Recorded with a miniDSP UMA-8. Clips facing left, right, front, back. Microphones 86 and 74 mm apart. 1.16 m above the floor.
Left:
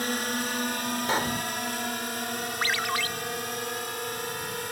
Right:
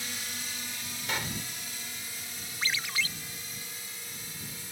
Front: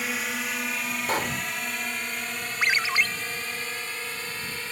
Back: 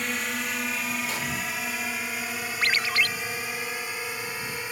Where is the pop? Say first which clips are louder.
Left 6 dB, front 4 dB; 40° left.